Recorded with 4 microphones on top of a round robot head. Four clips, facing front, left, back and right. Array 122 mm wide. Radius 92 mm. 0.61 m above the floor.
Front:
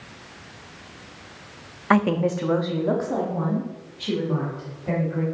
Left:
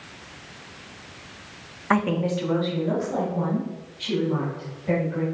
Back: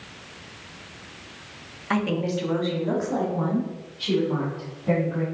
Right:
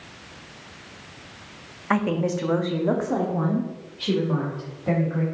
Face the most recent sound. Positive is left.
turn(degrees=-80)